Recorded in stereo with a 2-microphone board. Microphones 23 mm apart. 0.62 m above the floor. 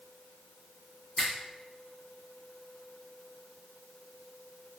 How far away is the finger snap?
About 1.5 m.